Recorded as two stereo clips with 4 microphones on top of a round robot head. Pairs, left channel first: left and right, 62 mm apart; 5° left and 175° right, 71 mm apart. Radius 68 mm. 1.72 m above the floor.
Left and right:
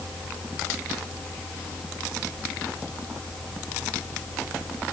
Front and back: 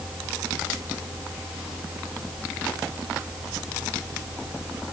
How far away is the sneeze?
No sneeze in this recording.